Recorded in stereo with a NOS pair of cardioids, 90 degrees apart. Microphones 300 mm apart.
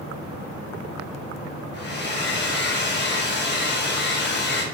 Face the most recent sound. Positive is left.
turn(degrees=35)